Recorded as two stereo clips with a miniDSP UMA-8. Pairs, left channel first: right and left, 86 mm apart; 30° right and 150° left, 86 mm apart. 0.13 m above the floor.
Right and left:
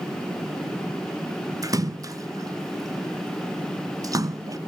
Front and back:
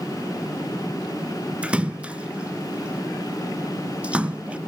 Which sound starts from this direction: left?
A splash, at 1.6 s.